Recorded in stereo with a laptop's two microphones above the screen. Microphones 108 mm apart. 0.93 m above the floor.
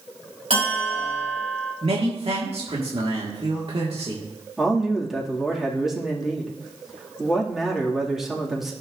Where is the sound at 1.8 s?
60° right (ahead or behind), 1.8 m.